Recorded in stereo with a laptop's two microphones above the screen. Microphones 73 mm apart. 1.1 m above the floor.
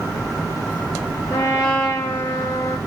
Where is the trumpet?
50° left (ahead or behind), 2.5 m.